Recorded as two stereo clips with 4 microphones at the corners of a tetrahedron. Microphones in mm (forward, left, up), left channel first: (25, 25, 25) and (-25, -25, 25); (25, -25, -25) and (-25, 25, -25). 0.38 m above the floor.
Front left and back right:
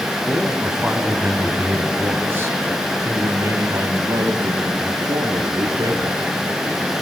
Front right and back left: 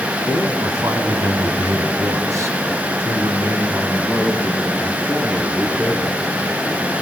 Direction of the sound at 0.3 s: 140° left.